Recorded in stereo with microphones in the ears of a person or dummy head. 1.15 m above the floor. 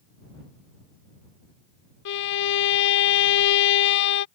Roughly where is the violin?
Left.